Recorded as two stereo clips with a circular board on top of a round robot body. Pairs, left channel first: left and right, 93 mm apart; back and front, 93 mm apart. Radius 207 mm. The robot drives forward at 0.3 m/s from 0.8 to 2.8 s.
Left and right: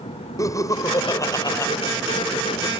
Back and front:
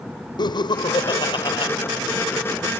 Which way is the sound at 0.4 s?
145° left.